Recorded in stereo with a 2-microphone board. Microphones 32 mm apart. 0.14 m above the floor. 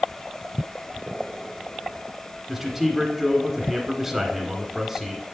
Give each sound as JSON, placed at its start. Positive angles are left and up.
{"t": 2.5, "sound": "a man speaking", "side_deg": -5, "distance_m": 1.5}